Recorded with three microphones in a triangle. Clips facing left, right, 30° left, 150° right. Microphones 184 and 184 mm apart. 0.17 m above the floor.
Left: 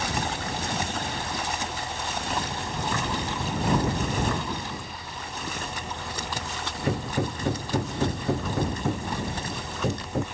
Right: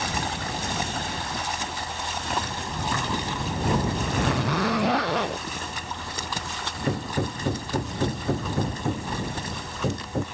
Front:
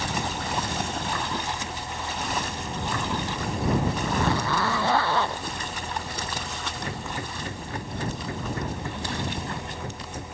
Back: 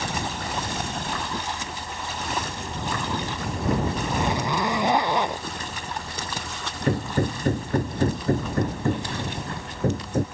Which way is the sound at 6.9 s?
Straight behind.